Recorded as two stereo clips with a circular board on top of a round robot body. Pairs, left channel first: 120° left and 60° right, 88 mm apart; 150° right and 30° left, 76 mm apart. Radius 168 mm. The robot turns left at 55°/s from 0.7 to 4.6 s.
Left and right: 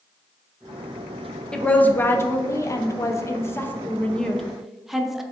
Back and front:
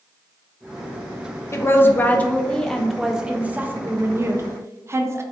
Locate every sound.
1.5 s a woman speaking: 165° right, 0.6 m; by 5.2 s 25° left, 0.6 m